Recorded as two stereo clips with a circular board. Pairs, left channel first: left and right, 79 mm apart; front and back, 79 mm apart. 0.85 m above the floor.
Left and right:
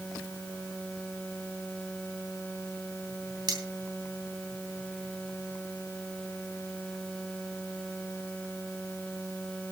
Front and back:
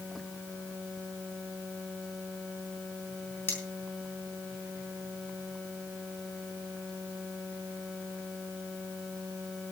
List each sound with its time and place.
3.5 s cutlery clinking: 65° right, 5 m